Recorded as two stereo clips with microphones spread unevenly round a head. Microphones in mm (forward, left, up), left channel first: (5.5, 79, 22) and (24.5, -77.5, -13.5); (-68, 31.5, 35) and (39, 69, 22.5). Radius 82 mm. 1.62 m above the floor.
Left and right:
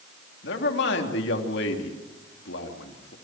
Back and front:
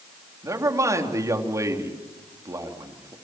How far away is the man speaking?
About 3.5 m.